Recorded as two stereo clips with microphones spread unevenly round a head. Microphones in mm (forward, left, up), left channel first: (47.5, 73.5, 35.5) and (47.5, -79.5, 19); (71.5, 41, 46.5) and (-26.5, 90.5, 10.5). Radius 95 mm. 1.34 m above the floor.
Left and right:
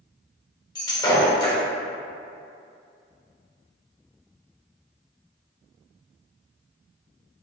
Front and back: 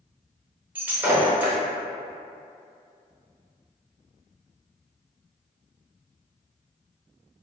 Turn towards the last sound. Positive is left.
turn(degrees=60)